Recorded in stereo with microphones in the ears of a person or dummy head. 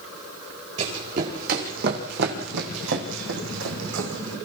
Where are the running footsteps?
40° right (ahead or behind), 6 m; by 4.4 s 70° right (ahead or behind), 5 m.